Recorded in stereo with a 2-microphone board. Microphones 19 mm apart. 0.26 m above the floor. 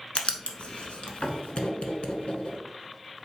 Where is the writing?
65° left (ahead or behind), 0.8 m.